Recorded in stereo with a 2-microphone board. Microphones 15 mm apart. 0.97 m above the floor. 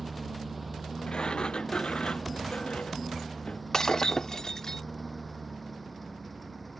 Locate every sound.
0.0 s a lawn mower: 10° right (ahead or behind); by 6.8 s 5° left (ahead or behind)
1.1 s a sliding door: 75° left (ahead or behind)
3.7 s breaking glass: 40° left (ahead or behind)